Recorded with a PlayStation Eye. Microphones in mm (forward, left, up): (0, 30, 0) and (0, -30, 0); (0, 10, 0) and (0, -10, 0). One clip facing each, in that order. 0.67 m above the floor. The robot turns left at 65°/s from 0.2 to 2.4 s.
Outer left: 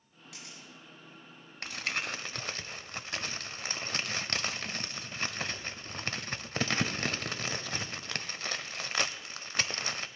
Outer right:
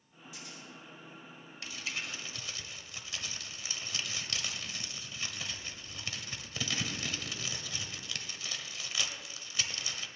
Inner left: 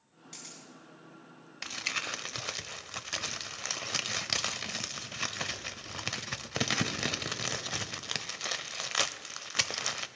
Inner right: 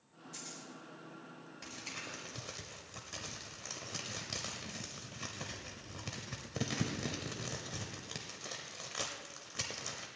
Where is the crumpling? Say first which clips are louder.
Outer left 5 dB, inner left 11 dB; 55° left (ahead or behind), 0.6 m; by 10.1 s 50° left (ahead or behind), 0.6 m.